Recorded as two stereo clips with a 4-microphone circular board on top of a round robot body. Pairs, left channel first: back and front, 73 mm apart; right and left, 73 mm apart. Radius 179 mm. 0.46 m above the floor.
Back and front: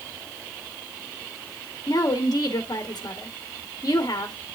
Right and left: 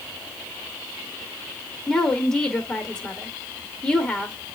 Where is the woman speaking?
160° right, 1.8 m.